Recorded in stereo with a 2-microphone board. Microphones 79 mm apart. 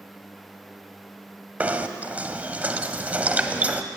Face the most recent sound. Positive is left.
turn(degrees=-20)  # may be behind; listen again after turning